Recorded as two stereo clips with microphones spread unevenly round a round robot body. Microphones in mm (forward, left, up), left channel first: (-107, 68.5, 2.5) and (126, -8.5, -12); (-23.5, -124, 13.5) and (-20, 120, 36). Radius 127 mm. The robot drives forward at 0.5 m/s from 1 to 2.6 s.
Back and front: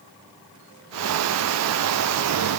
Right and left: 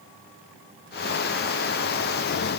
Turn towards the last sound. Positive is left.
No sound to turn to.